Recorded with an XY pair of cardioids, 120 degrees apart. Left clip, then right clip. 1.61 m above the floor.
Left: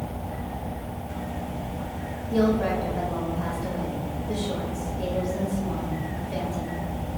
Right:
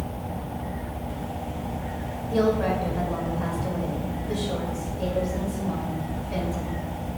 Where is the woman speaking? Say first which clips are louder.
Right 1 dB; 5° right, 3 m.